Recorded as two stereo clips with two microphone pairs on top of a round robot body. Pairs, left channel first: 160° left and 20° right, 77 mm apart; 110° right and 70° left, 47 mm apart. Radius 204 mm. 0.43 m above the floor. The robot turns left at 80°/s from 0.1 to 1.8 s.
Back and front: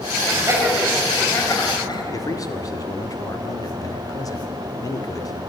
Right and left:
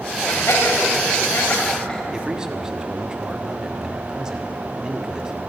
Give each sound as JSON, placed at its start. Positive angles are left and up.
{"t": 0.3, "sound": "laughter", "azimuth_deg": -60, "distance_m": 4.5}
{"t": 2.1, "sound": "a man speaking", "azimuth_deg": 145, "distance_m": 2.0}